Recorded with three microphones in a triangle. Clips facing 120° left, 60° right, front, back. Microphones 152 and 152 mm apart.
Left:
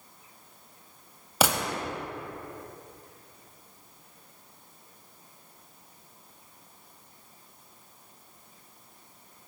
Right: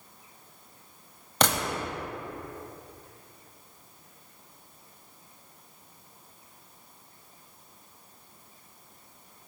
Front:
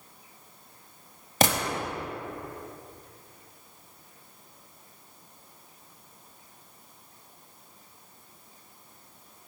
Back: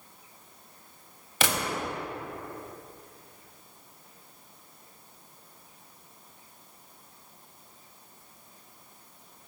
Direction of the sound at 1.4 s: 40° left.